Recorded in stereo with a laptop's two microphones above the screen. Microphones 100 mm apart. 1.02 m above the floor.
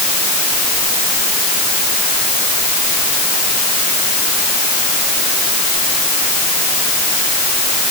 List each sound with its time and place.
Only background noise.